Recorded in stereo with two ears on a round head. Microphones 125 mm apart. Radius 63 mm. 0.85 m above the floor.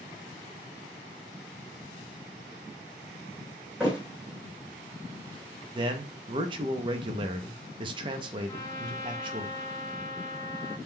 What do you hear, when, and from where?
3.8 s a thud: 5° right (ahead or behind), 1.9 m
5.8 s a man speaking: 35° right (ahead or behind), 0.6 m
8.5 s a trumpet: 25° left (ahead or behind), 0.6 m